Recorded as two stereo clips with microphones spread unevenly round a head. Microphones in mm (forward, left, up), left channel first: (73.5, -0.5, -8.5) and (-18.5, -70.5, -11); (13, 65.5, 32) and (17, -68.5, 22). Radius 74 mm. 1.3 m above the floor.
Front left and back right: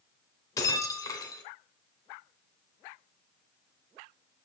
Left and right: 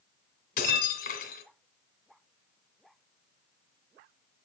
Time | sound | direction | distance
0.6 | breaking glass | 100° left | 2 m